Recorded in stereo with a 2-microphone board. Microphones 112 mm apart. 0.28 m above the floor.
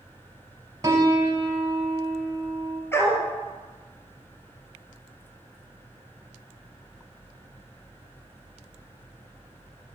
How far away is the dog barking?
About 1.5 m.